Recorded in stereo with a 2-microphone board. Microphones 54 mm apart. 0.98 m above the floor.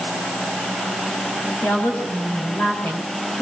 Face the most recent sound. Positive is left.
turn(degrees=35)  # may be behind; listen again after turning